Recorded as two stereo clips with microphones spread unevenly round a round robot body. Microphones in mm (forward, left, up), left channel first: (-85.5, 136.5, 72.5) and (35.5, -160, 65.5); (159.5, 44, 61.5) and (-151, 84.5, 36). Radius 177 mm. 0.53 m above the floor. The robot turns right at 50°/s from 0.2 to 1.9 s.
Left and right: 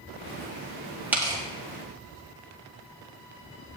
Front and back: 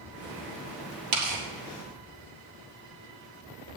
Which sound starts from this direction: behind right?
Tearing paper, at 1.1 s.